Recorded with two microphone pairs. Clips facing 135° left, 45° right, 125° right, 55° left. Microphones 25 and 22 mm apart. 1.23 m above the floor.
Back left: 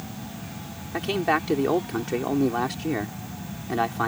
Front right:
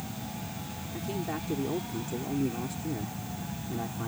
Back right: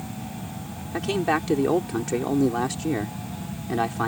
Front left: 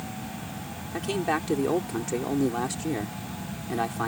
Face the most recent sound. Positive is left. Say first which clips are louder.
# back left 12 dB, back right 4 dB
turn(degrees=160)